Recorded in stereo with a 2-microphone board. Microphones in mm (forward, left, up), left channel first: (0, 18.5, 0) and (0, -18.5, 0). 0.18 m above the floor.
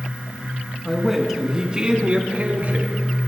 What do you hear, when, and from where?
0.8 s a man speaking: centre (ahead or behind), 1.7 m; by 3.0 s 50° right (ahead or behind), 1.8 m